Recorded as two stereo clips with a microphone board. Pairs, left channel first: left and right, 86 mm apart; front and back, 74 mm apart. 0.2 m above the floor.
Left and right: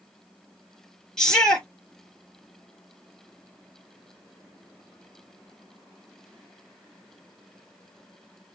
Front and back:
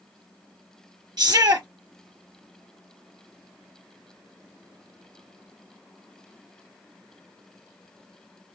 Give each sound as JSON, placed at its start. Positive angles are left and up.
{"t": 1.2, "sound": "a shout", "azimuth_deg": 170, "distance_m": 4.0}